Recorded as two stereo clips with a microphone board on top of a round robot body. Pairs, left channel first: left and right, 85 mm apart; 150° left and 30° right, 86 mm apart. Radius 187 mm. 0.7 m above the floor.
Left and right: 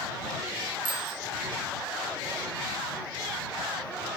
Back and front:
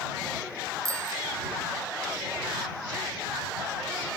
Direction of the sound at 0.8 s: 80° right.